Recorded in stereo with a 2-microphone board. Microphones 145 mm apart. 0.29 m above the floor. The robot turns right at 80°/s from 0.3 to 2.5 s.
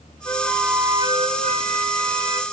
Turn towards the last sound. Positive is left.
turn(degrees=-30)